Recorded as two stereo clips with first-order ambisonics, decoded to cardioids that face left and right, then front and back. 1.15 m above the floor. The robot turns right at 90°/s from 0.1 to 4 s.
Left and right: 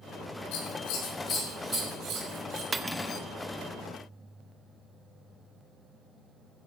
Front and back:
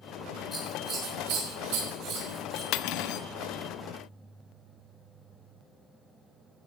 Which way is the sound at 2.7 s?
15° right.